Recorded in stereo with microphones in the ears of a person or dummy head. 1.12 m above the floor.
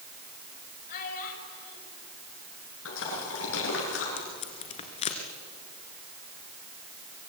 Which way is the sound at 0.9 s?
50° left (ahead or behind).